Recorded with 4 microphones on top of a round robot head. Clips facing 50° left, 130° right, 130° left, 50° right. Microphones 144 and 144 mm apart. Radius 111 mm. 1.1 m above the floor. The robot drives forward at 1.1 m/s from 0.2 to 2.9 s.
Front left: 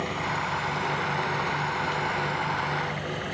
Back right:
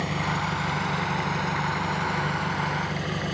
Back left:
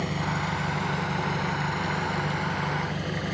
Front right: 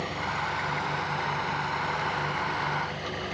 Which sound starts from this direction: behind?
An engine running, at 0.0 s.